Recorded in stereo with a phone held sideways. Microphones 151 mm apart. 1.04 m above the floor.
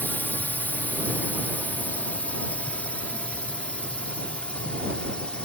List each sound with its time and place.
0.0 s a drone: 15° left (ahead or behind); by 5.5 s 5° left (ahead or behind)